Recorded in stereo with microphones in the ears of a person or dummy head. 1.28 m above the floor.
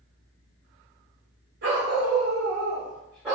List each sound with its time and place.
1.6 s a dog barking: 45° right (ahead or behind), 1.2 m; by 3.4 s 10° right (ahead or behind), 1.2 m